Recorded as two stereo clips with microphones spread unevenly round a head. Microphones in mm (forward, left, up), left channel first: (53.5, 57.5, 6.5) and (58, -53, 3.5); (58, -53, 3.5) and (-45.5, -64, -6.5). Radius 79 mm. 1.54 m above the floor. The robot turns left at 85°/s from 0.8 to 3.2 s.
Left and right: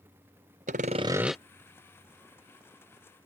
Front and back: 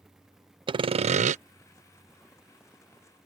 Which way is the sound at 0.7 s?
130° right.